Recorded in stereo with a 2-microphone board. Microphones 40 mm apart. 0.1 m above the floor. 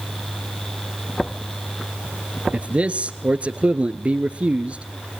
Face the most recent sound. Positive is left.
turn(degrees=-30)  # may be behind; listen again after turning